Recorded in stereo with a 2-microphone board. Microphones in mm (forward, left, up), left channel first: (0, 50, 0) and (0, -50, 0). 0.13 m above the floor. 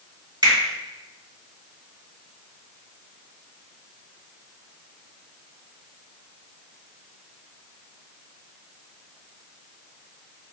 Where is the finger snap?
45° right (ahead or behind), 1.8 m.